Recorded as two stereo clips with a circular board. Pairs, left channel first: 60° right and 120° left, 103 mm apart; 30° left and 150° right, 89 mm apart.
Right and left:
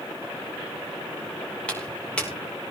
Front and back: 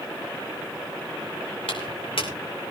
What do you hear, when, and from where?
1.7 s footsteps: 20° left, 5.5 m